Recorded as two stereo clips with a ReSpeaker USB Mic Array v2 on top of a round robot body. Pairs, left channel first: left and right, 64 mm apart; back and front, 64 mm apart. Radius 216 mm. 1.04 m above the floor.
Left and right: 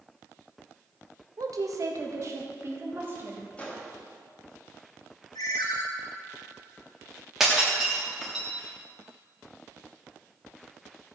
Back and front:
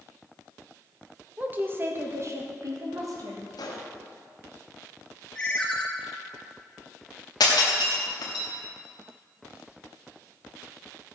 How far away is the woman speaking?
About 1.5 m.